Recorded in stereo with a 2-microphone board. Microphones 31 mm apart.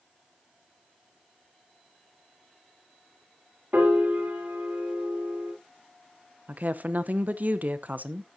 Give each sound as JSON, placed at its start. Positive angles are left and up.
{"t": 3.7, "sound": "a piano", "side_deg": -65, "distance_m": 3.5}
{"t": 6.5, "sound": "a woman speaking", "side_deg": -55, "distance_m": 0.8}